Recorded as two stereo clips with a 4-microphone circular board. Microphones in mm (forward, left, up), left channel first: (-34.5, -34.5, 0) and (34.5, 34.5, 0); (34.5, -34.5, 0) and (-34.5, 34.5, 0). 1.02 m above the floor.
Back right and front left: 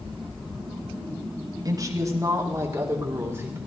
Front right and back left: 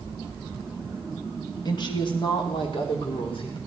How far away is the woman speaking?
About 1.7 m.